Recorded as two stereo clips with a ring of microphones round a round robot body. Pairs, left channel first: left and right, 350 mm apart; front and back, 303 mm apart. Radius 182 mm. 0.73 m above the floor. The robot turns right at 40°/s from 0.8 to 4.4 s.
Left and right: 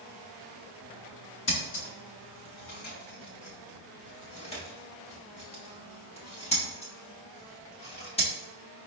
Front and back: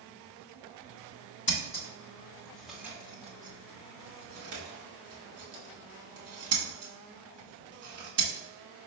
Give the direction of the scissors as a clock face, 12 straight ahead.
11 o'clock.